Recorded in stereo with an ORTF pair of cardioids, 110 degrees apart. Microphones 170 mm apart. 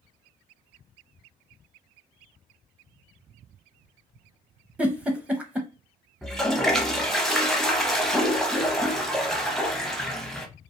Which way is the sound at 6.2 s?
Straight ahead.